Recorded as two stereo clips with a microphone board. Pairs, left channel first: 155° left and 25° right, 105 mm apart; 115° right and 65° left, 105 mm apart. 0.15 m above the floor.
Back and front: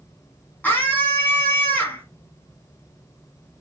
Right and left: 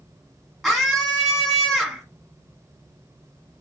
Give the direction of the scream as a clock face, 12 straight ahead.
7 o'clock.